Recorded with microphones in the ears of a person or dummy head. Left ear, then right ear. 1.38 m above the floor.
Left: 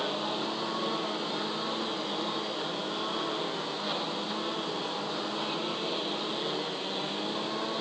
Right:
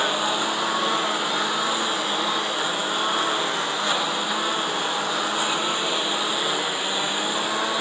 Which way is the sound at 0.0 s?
60° right (ahead or behind).